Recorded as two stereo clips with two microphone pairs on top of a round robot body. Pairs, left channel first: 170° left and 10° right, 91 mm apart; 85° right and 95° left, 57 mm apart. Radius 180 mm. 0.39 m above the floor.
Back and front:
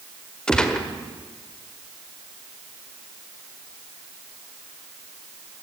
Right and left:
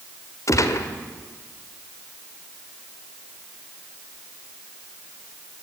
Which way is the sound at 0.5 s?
110° right.